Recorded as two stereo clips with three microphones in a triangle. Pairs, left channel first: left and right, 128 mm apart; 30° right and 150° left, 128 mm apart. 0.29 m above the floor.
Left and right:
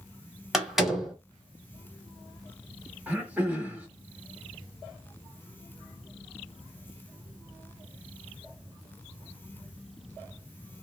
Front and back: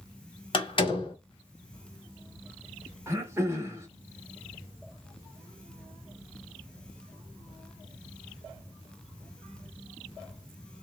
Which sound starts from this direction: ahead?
A door slam, at 0.5 s.